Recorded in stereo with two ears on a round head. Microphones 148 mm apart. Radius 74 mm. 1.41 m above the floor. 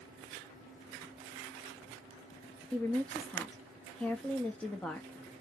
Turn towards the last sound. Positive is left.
turn(degrees=10)  # may be behind; listen again after turning